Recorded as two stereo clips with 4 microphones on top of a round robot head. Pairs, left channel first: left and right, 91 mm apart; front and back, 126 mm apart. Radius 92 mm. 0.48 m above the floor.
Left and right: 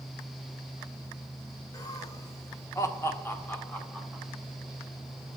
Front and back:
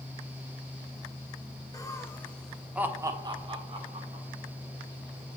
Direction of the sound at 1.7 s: 50° left.